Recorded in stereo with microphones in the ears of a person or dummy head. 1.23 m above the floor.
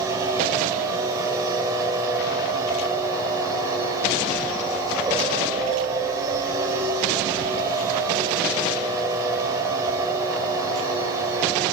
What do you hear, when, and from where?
0.0 s a machine running: 20° right (ahead or behind), 6 m